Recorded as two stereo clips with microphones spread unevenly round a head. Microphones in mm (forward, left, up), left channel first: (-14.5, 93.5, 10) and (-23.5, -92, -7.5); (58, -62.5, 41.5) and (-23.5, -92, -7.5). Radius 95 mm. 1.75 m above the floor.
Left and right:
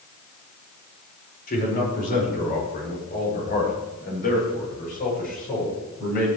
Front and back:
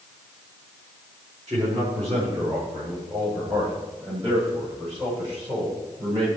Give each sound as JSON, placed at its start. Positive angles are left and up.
{"t": 1.5, "sound": "a man speaking", "azimuth_deg": 130, "distance_m": 5.5}